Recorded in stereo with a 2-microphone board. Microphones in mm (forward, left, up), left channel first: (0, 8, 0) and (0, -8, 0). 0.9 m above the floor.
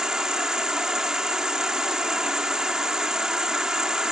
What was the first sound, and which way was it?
An insect, 45° right (ahead or behind).